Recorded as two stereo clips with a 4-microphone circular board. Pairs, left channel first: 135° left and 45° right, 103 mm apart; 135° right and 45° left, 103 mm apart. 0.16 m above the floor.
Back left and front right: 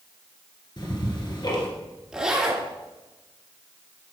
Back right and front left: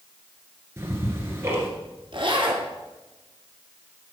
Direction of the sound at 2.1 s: 35° left.